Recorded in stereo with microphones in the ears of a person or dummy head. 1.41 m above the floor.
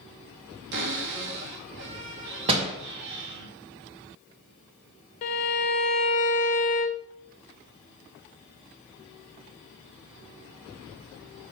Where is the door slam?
30° right (ahead or behind), 1.9 m.